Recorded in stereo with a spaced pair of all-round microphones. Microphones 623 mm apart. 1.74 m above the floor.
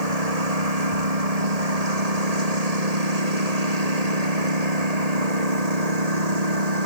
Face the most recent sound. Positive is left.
turn(degrees=-85)